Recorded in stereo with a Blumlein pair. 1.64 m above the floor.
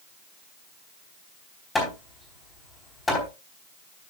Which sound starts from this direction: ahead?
Hammering, at 1.8 s.